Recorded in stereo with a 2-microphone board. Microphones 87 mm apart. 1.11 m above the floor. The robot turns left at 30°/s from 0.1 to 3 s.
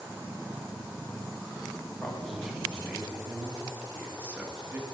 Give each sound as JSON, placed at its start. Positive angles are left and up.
{"t": 2.0, "sound": "a man speaking", "side_deg": 10, "distance_m": 1.5}